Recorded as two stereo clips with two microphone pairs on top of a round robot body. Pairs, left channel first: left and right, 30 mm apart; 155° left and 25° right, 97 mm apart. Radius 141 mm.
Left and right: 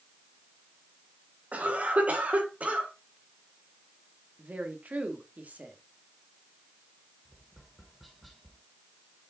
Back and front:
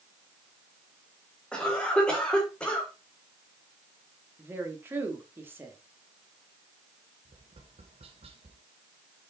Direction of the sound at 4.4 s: 85° right.